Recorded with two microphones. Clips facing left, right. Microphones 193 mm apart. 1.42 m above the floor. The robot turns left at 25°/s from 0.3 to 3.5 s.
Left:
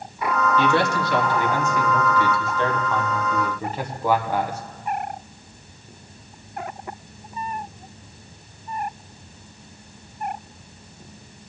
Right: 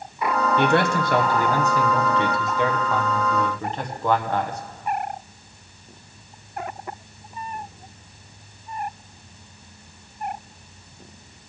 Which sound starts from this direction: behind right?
A man speaking, at 0.6 s.